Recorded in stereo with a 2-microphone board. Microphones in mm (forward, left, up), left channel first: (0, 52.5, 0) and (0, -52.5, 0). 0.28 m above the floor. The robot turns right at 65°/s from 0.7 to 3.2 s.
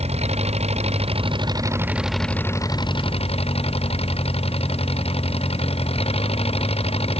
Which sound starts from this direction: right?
An engine running, at 0.0 s.